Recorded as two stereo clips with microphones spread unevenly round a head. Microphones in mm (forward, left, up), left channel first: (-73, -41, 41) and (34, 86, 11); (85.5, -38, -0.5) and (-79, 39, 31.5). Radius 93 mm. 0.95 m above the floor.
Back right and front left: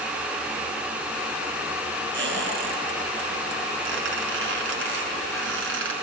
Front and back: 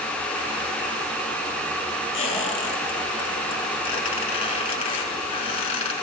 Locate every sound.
2.1 s a squeak: 35° left, 8 m